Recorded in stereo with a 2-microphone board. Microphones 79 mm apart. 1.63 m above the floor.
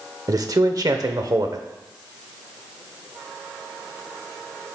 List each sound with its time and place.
0.3 s a man speaking: 50° right (ahead or behind), 0.9 m